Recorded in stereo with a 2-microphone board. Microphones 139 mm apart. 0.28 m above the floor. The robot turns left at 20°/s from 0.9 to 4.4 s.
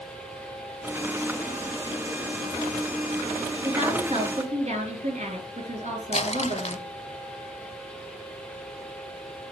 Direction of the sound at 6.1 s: 50° left (ahead or behind).